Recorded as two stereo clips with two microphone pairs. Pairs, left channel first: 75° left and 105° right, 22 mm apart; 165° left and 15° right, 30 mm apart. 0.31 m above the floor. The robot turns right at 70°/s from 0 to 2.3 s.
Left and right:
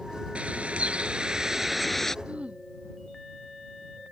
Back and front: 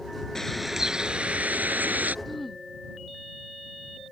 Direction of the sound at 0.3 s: 125° right.